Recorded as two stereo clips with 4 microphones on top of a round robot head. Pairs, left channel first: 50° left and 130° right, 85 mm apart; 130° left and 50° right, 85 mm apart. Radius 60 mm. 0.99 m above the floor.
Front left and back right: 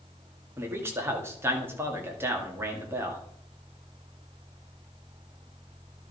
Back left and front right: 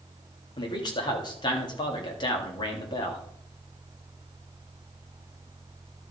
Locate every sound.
0.6 s a man speaking: 165° left, 2 m